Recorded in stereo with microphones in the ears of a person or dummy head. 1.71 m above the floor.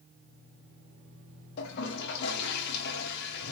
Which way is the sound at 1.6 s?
65° left (ahead or behind).